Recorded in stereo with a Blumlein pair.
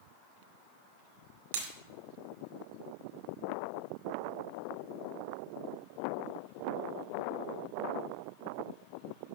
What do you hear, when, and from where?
1.5 s breaking glass: 65° right, 1.9 m